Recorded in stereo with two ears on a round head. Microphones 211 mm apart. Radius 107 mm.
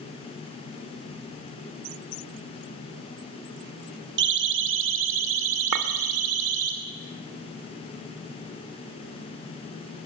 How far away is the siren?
About 2 m.